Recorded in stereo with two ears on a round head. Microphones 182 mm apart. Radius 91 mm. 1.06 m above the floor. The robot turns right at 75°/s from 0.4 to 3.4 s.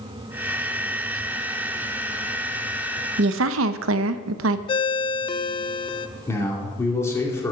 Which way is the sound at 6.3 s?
15° left (ahead or behind).